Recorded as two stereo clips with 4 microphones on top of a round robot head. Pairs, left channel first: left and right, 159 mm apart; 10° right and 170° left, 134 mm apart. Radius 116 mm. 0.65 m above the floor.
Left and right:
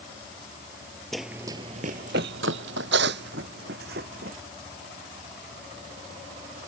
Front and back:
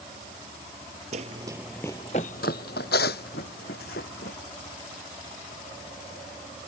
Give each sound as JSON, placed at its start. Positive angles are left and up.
{"t": 1.1, "sound": "running footsteps", "azimuth_deg": 180}